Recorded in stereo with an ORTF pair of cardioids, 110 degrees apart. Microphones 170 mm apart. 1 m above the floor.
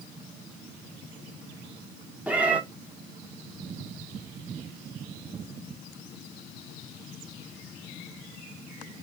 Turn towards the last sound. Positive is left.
turn(degrees=-10)